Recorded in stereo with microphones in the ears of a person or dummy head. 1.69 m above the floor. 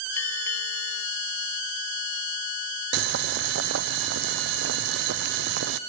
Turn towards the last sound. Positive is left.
turn(degrees=-55)  # may be behind; listen again after turning